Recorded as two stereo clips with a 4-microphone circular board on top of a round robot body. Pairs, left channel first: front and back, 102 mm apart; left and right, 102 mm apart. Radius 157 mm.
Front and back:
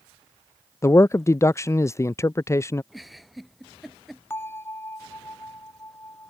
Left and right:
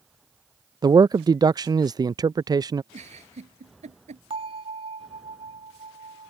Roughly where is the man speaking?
Ahead right.